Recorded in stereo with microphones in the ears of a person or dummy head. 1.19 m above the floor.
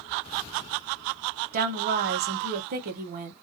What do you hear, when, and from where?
1.5 s a woman speaking: 40° right (ahead or behind), 0.8 m